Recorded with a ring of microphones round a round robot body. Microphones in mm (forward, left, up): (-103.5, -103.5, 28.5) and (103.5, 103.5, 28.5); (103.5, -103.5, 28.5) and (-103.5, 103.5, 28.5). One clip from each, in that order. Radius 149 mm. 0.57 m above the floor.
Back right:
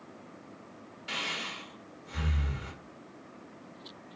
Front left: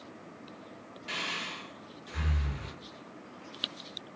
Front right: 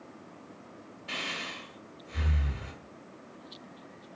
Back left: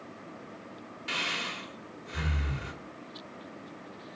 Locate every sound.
1.1 s breathing: 135° left, 2 m